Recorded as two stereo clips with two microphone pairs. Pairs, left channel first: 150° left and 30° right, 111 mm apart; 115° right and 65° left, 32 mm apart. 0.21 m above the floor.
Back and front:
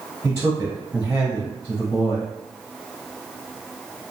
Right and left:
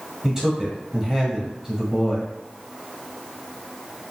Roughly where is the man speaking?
Ahead.